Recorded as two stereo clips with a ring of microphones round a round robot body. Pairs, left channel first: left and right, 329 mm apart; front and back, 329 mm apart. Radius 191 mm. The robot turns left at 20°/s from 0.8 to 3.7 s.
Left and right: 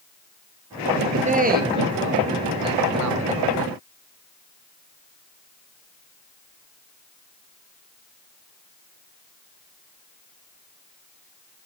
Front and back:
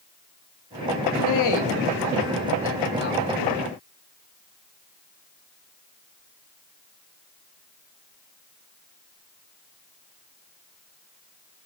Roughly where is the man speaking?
Ahead.